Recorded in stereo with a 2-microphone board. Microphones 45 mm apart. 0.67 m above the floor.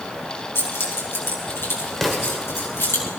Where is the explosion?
5° left (ahead or behind), 1.9 m.